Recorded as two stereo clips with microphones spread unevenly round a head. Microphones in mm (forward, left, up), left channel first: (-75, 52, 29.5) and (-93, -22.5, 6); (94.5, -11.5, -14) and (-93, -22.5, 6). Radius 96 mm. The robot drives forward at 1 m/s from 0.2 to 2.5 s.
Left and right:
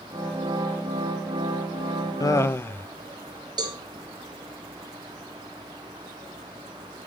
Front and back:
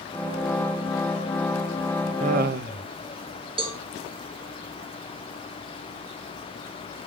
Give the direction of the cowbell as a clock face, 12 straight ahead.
4 o'clock.